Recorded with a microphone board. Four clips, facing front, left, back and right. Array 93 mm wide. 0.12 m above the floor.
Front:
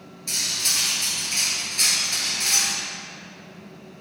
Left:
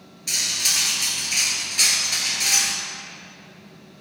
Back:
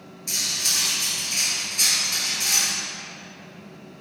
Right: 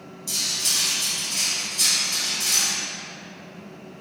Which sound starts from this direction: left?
Cutlery clinking, at 0.3 s.